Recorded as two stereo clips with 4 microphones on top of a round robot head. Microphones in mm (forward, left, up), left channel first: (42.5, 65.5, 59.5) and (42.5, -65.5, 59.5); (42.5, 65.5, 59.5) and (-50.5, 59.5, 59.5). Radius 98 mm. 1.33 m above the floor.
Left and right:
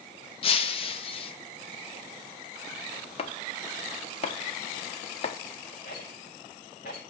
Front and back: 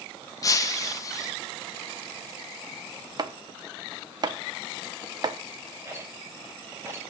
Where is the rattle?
120° left, 6 m.